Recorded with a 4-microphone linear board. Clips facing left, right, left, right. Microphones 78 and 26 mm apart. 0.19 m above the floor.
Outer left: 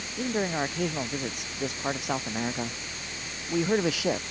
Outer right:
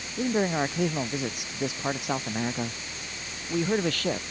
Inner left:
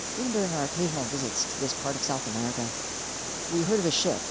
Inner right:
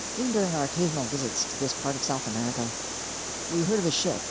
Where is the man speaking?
10° right (ahead or behind); by 4.2 s 10° left (ahead or behind).